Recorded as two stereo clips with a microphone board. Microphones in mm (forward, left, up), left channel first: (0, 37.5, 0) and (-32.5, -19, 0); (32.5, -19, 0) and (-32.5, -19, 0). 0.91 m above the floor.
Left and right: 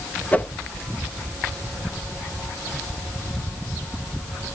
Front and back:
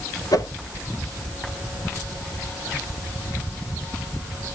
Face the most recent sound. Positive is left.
turn(degrees=-5)